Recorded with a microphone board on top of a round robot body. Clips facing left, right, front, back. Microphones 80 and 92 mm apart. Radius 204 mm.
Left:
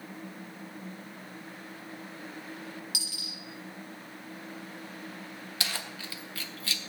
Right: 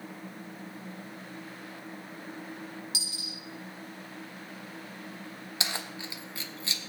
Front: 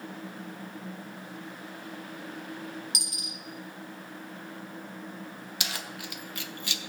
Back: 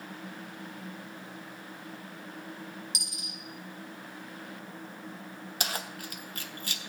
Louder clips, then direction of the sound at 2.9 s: Right 1 dB, front 3 dB; 30° right.